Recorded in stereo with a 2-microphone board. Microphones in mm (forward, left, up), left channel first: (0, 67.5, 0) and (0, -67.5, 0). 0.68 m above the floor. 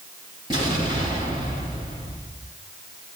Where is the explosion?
35° right (ahead or behind), 8 m.